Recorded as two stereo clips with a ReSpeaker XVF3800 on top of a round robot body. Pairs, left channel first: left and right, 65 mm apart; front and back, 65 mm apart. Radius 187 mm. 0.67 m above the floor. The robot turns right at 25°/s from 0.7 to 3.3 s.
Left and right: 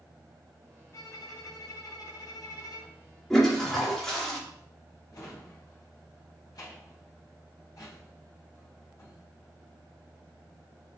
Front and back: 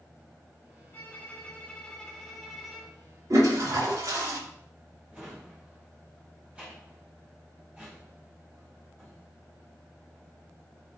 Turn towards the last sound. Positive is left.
turn(degrees=110)